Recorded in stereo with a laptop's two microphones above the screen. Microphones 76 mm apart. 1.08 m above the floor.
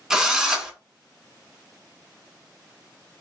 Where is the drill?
10° right (ahead or behind), 1.3 m.